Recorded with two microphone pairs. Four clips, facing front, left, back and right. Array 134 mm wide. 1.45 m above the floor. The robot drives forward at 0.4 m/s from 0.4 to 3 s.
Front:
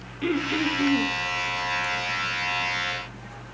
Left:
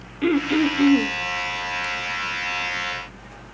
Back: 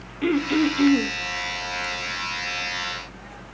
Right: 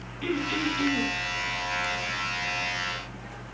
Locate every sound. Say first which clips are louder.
0.2 s throat clearing: left 9 dB, back 5 dB; 110° left, 0.8 m; by 1.1 s 135° left, 0.9 m